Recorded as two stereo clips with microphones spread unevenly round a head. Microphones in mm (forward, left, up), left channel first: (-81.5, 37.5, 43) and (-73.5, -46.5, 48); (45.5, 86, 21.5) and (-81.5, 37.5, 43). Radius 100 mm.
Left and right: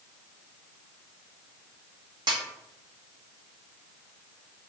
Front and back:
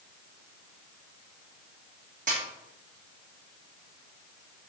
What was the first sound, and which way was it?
A snare drum, 110° right.